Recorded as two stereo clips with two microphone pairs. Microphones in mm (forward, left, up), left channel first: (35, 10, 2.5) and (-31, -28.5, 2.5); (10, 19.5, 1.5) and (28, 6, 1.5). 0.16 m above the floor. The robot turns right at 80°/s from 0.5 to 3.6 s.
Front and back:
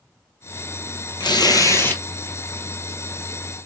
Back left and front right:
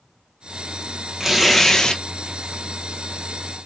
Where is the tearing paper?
35° left, 0.9 m; by 2.0 s 100° left, 0.9 m.